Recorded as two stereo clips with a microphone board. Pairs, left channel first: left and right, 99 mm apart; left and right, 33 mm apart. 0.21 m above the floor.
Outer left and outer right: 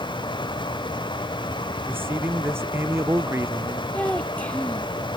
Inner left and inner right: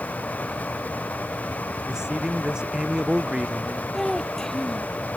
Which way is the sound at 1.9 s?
20° right (ahead or behind).